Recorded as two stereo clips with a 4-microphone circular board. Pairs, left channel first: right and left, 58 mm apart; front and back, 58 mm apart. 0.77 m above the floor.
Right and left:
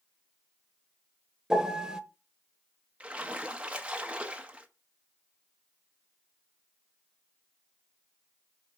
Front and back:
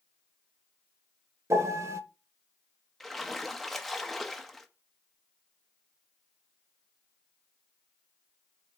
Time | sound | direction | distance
1.5 | a piano | 165° left | 0.8 m
3.0 | a splash | 80° left | 1.0 m